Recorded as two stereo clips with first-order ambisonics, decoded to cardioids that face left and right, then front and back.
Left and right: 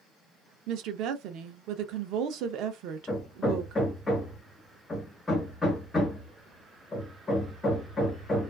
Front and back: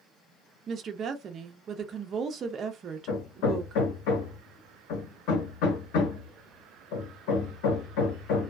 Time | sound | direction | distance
0.7 | a woman speaking | 120° right | 0.5 m
3.1 | hammering | 15° left | 1.1 m